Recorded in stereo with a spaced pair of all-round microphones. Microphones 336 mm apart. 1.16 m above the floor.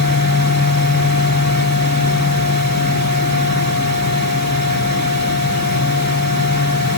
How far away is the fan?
About 3 m.